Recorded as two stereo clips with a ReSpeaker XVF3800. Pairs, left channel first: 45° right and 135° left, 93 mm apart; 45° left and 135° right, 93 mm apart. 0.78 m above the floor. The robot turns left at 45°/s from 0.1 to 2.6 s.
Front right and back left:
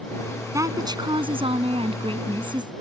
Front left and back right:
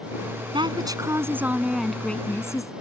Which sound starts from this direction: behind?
A woman speaking, at 0.5 s.